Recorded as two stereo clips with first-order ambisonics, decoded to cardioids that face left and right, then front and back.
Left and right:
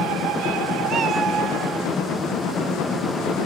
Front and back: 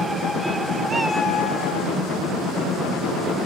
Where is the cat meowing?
125° right, 0.5 m; by 2.0 s 15° right, 1.2 m.